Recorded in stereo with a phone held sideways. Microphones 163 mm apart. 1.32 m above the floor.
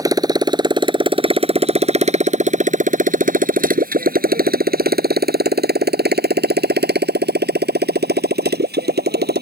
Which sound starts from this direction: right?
A motorcycle, at 0.0 s.